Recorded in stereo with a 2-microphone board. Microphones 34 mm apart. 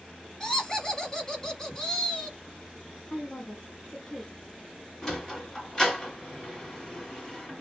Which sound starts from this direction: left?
A woman speaking, at 3.1 s.